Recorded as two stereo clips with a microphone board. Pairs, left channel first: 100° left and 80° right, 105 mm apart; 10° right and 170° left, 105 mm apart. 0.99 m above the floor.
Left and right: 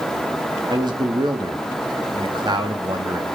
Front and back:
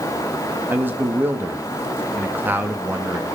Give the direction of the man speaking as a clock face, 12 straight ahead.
4 o'clock.